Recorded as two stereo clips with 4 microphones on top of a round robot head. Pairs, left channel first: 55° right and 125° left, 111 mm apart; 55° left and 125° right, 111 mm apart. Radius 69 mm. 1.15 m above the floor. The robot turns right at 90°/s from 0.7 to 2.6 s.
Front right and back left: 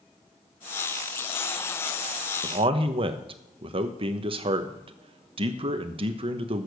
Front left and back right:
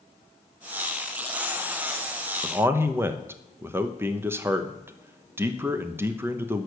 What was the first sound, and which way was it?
A man speaking, 150° left.